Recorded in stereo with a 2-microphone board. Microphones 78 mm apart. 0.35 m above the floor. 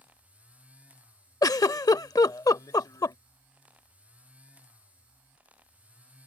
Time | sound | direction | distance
1.4 | a giggle | 50° left (ahead or behind) | ?